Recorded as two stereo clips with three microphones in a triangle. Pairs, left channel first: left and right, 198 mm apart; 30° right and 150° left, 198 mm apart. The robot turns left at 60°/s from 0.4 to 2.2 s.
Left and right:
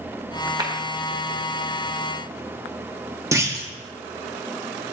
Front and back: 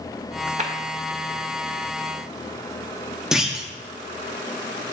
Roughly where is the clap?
Behind right.